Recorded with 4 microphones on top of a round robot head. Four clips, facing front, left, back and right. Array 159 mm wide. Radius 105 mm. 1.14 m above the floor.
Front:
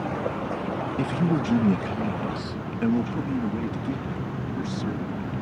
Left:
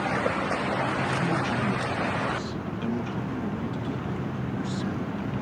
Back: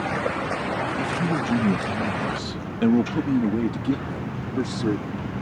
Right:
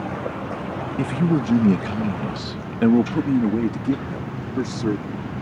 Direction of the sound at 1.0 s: 70° right.